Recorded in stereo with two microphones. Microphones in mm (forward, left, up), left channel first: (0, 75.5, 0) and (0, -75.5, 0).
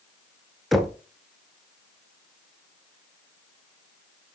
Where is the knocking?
Centre (ahead or behind), 1.0 m.